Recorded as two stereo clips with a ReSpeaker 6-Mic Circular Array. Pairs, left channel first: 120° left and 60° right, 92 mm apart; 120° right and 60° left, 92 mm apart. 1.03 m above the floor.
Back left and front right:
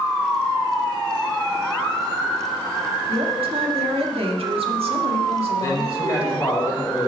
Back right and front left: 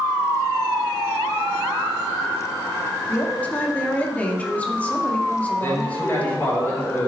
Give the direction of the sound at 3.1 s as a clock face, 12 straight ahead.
1 o'clock.